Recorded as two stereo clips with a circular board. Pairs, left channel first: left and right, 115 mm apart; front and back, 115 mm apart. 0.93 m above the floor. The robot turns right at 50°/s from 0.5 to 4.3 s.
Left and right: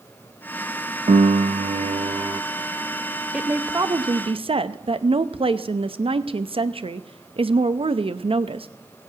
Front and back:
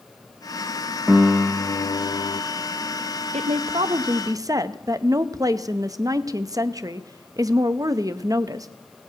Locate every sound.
1.1 s a piano: 100° right, 0.5 m; by 2.4 s 35° right, 0.5 m
3.3 s a woman speaking: 170° right, 0.6 m; by 8.7 s 125° right, 0.6 m